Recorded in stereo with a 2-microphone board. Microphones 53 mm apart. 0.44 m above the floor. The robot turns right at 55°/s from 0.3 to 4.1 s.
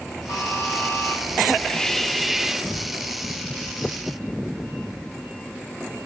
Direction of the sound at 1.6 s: 15° left (ahead or behind).